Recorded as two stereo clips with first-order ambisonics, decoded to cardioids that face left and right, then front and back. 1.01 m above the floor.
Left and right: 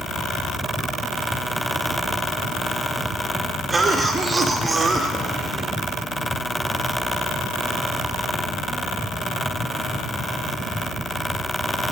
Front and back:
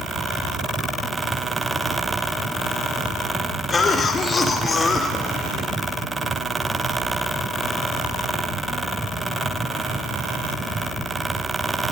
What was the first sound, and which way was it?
A cough, 30° right.